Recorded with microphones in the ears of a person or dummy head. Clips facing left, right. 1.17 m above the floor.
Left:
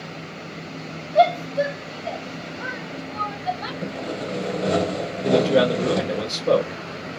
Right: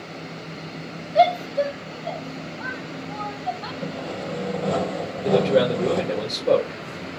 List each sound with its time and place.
1.1 s a shout: 5° right (ahead or behind), 1.7 m; by 3.7 s 65° left (ahead or behind), 2 m
3.8 s sawing: 20° left (ahead or behind), 0.6 m
5.2 s a man speaking: 10° left (ahead or behind), 1.3 m